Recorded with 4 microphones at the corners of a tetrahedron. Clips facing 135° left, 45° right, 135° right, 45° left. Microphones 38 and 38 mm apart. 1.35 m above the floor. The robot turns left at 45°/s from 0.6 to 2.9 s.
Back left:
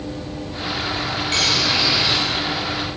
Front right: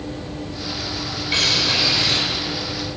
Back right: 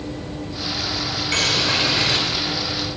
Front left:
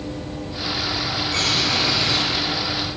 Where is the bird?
120° right, 5.5 m; by 2.2 s 155° right, 5.5 m.